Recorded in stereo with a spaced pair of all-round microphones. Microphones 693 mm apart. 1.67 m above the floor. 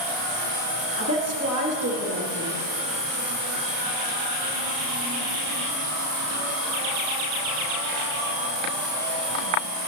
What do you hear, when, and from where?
1.0 s a woman speaking: 20° right (ahead or behind), 1.9 m